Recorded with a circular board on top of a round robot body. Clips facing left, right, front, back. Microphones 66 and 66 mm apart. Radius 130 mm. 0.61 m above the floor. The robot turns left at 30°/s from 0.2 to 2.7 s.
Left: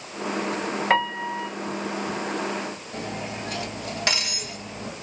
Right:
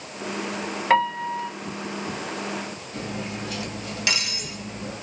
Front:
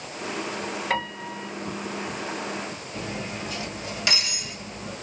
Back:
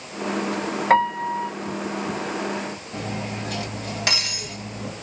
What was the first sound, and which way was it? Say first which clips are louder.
A piano: right 4 dB, back 13 dB; 175° left.